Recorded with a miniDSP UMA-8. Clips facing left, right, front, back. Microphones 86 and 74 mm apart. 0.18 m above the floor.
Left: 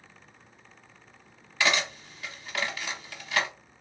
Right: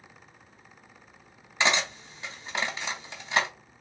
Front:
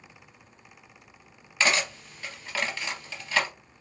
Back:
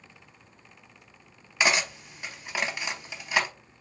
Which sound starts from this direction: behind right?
Cutlery clinking, at 1.6 s.